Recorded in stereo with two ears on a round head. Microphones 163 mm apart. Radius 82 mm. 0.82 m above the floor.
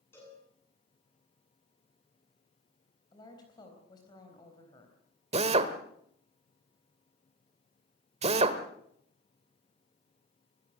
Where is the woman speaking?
25° left (ahead or behind), 4 m.